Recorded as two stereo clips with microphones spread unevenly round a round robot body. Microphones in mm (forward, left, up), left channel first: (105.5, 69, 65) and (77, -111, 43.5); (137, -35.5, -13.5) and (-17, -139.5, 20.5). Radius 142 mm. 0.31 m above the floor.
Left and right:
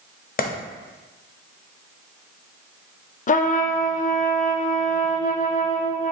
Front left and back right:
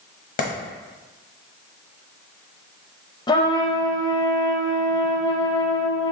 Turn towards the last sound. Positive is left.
turn(degrees=65)